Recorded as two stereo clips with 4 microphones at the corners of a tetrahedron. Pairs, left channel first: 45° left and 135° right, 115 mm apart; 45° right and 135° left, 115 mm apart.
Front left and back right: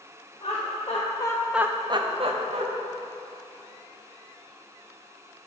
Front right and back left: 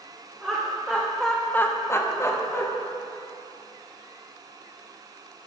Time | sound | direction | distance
0.4 | laughter | 60° left | 1.4 m